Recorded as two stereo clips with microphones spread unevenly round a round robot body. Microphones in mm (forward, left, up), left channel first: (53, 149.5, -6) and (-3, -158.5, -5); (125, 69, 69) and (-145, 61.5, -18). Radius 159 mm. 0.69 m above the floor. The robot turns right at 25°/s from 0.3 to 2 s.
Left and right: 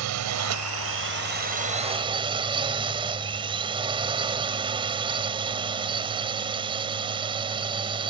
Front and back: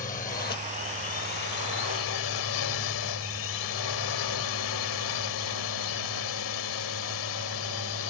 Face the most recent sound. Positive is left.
turn(degrees=-25)